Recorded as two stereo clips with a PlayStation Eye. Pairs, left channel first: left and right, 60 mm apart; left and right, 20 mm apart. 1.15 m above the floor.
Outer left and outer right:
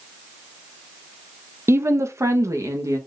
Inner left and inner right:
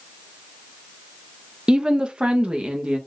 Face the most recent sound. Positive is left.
turn(degrees=-60)  # may be behind; listen again after turning